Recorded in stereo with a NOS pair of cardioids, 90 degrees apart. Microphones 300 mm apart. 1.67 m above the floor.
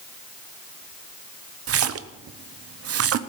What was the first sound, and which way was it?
A splash, 50° right.